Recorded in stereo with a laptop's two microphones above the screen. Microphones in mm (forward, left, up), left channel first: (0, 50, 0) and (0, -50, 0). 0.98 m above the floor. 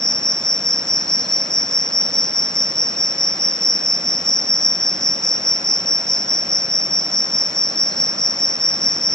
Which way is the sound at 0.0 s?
5° left (ahead or behind).